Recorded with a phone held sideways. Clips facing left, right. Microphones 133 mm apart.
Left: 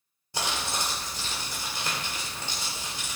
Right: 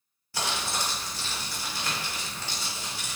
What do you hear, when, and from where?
0.3 s crumpling: 20° left (ahead or behind), 1.1 m